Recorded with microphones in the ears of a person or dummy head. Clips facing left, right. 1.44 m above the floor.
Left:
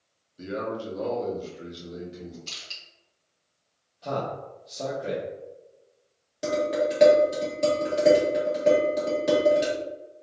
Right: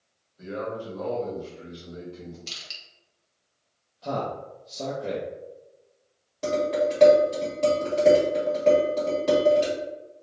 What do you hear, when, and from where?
0.4 s a man speaking: 40° left (ahead or behind), 1.0 m; by 2.4 s 25° left (ahead or behind), 1.9 m
2.5 s crushing: 20° right (ahead or behind), 1.5 m
4.0 s a man speaking: centre (ahead or behind), 0.7 m
6.4 s dishes clattering: 10° left (ahead or behind), 1.9 m